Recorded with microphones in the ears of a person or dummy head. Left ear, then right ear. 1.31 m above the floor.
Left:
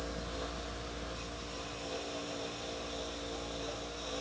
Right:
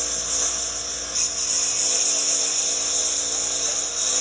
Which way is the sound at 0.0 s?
70° right (ahead or behind).